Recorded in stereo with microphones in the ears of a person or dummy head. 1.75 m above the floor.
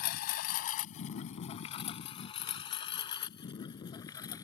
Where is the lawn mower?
55° left (ahead or behind); by 4.4 s 20° left (ahead or behind).